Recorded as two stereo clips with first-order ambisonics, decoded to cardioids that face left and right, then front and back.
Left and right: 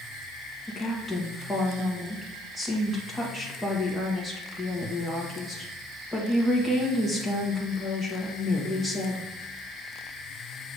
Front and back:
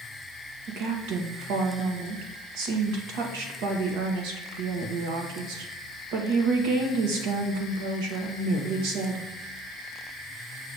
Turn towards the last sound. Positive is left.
turn(degrees=175)